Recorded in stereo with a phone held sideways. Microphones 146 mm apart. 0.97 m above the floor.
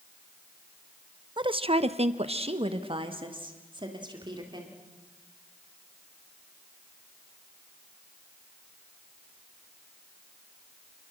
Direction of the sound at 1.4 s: 30° right (ahead or behind).